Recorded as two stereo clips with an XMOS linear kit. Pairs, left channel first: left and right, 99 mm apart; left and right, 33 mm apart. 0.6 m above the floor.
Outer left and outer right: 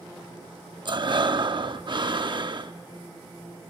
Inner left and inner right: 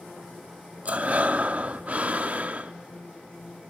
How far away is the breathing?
About 0.6 m.